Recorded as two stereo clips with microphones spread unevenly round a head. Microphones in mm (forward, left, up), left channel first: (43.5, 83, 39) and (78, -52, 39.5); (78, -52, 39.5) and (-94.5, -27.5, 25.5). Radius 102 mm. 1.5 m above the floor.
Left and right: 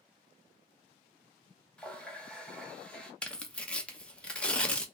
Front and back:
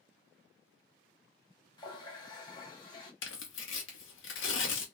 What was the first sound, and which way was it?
A running tap, 25° left.